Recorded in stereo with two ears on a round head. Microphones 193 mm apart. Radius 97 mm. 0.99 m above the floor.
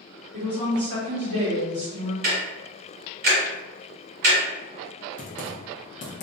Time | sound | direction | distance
0.3 | a woman speaking | 55° right (ahead or behind) | 1.2 m
2.2 | ticking | 45° right (ahead or behind) | 1.4 m
5.2 | typing on a keyboard | 35° left (ahead or behind) | 0.6 m